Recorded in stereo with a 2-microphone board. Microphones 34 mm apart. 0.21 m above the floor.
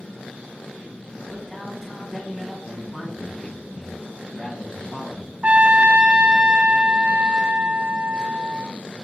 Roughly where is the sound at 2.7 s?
Left.